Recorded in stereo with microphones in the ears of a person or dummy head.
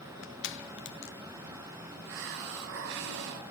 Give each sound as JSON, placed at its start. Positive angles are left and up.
{"t": 0.2, "sound": "crushing", "side_deg": 50, "distance_m": 1.0}
{"t": 2.0, "sound": "a hiss", "side_deg": -60, "distance_m": 0.8}